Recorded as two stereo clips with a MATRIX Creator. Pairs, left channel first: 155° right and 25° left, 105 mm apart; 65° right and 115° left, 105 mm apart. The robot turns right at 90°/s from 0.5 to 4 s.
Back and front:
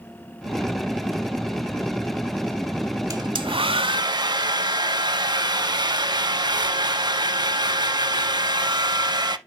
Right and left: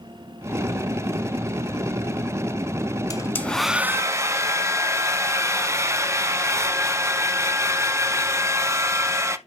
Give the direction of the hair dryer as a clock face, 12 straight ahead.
1 o'clock.